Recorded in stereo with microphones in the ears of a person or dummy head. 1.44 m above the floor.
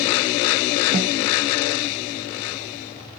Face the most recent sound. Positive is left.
turn(degrees=-35)  # may be behind; listen again after turning